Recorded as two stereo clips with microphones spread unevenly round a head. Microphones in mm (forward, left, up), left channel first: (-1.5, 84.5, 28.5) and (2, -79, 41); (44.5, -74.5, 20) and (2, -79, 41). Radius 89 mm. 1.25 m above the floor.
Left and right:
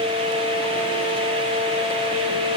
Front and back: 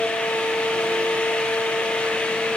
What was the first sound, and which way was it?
Only background noise.